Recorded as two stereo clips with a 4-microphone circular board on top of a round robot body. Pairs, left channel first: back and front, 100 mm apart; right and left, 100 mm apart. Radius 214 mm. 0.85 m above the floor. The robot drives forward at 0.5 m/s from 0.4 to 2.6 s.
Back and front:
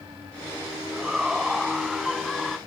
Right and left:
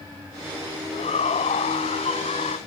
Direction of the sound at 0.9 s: 85° right.